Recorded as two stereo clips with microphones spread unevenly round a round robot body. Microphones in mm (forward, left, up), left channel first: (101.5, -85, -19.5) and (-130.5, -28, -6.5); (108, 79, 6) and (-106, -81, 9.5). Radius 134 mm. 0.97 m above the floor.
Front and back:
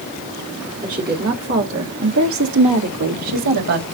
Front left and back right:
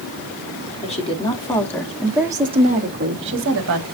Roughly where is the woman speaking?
Left.